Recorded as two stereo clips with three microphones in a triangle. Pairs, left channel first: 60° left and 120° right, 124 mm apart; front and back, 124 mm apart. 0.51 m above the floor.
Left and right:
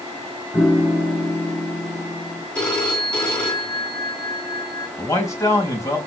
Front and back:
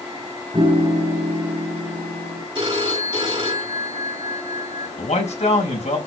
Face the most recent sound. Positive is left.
turn(degrees=-5)